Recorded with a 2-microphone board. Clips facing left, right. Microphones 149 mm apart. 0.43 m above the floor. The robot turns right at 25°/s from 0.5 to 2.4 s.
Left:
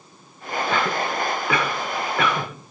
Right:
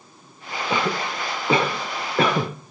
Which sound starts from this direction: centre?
A cough, at 0.7 s.